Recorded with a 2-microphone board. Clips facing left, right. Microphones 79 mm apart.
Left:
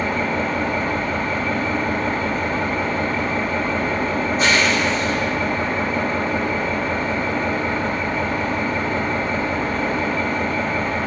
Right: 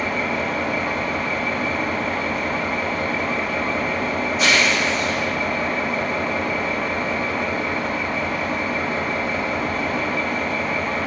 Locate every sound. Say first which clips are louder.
0.0 s an engine running: left 2 dB; 40° left (ahead or behind), 1.6 m